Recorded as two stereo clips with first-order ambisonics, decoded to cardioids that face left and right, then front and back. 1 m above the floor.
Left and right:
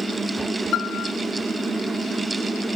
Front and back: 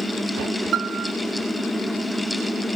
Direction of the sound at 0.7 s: 135° left.